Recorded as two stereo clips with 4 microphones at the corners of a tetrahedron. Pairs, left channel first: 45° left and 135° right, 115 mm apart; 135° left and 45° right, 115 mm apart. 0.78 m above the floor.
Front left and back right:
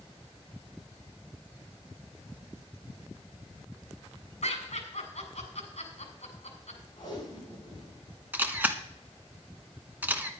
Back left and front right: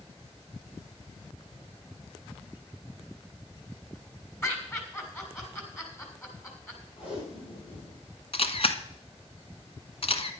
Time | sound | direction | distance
4.4 | laughter | 65° left | 4 m
7.0 | tape being pulled | 100° left | 8.5 m
8.3 | a camera shutter | 150° left | 1.2 m